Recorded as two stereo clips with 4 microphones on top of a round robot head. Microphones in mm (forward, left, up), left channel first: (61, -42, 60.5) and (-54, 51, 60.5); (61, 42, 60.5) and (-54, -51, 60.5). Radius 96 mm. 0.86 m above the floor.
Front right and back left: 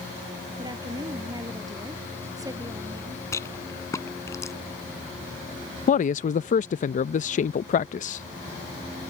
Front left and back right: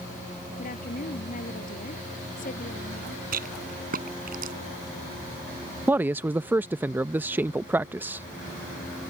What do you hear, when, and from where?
0.6 s a woman speaking: 75° left
3.3 s a rattle: 110° right
5.9 s a man speaking: 65° right